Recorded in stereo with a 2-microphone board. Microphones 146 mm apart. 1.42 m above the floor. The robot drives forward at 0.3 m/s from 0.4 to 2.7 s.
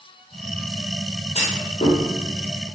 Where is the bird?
I don't hear a bird.